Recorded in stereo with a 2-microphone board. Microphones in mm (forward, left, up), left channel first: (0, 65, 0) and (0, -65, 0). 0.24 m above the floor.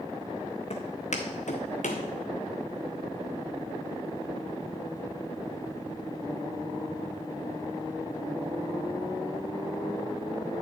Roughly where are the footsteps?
Left.